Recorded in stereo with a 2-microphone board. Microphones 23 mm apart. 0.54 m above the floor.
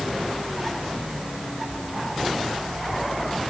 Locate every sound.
Only background noise.